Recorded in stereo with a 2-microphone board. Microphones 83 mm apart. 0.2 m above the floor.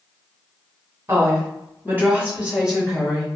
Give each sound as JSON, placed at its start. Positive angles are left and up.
{"t": 1.1, "sound": "a woman speaking", "side_deg": -30, "distance_m": 1.5}